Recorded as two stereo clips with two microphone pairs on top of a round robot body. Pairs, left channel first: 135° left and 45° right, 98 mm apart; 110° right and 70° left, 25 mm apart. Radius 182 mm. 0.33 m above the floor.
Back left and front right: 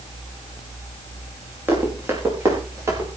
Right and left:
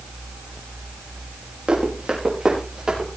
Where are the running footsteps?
25° left, 6 m; by 3.1 s 15° left, 6 m.